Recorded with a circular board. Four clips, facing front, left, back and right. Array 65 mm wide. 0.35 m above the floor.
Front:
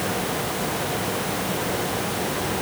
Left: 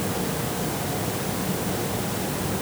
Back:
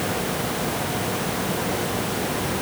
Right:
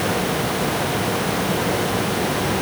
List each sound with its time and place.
Only background noise.